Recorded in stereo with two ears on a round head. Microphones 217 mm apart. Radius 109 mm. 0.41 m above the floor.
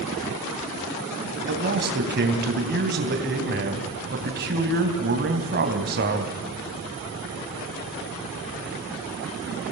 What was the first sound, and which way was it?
A man speaking, 45° right (ahead or behind).